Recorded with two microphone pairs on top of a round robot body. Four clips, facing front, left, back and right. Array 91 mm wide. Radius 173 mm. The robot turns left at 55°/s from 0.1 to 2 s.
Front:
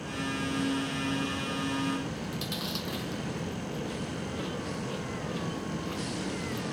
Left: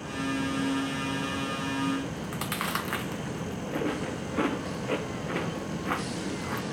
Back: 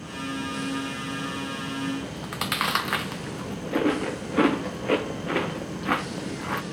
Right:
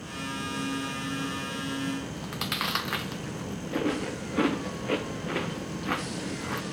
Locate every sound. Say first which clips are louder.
2.0 s chewing: left 2 dB, back 3 dB; 175° right